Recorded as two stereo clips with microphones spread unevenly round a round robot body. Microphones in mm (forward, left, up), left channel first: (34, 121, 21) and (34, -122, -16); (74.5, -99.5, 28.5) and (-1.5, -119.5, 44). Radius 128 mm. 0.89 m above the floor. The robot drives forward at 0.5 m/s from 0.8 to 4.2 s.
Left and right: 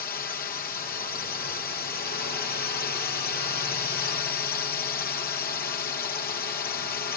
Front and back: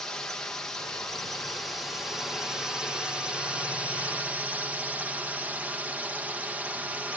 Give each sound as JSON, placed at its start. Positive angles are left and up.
{"t": 0.0, "sound": "a drone", "azimuth_deg": 65}